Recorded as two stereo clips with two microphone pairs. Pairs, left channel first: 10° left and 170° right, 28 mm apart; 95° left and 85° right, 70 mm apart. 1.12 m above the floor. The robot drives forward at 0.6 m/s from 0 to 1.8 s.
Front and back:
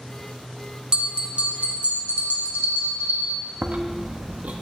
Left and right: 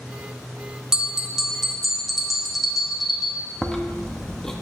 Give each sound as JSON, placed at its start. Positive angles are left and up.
{"t": 0.9, "sound": "a bell", "azimuth_deg": -155, "distance_m": 0.6}
{"t": 3.6, "sound": "chewing", "azimuth_deg": 175, "distance_m": 0.9}